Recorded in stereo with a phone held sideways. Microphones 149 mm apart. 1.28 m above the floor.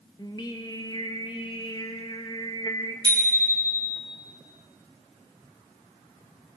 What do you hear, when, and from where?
0.2 s singing: 30° left (ahead or behind), 1.1 m
3.0 s a bicycle bell: 30° right (ahead or behind), 4 m